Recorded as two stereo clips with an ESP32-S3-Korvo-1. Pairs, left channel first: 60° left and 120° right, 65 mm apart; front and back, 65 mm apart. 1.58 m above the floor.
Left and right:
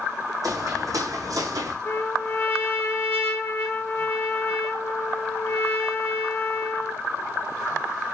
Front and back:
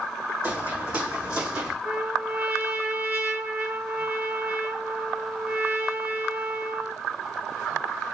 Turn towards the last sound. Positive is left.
turn(degrees=115)